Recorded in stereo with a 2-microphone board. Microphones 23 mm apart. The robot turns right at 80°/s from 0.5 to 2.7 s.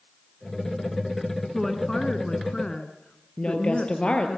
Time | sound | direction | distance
1.5 | a woman speaking | 20° left | 1.9 m
3.4 | a woman speaking | 50° left (ahead or behind) | 4 m